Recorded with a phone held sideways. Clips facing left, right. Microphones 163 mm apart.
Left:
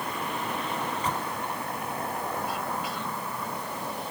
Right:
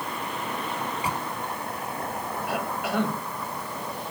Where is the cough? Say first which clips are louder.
Right 4 dB; 70° right (ahead or behind).